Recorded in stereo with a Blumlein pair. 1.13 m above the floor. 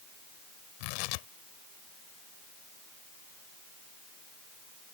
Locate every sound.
0.8 s tearing paper: 45° left